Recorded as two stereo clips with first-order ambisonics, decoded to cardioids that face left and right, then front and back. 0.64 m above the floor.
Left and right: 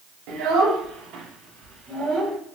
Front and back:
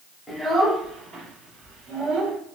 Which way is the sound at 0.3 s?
85° right.